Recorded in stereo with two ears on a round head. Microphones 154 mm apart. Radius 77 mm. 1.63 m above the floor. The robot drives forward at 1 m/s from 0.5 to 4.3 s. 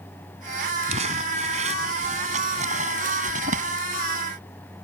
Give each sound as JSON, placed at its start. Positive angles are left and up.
{"t": 0.9, "sound": "crumpling", "side_deg": -40}